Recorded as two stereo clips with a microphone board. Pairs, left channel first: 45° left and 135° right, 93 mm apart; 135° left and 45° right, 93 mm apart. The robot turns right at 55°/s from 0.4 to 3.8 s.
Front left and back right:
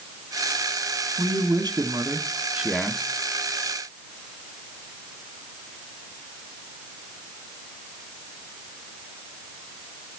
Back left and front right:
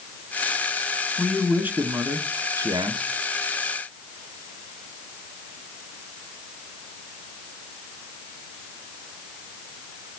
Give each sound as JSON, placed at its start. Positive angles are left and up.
{"t": 1.2, "sound": "a man speaking", "azimuth_deg": -135, "distance_m": 1.3}